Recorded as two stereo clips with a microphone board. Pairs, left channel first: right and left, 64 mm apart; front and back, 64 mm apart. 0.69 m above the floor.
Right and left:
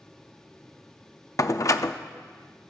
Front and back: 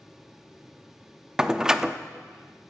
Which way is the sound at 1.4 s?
100° right.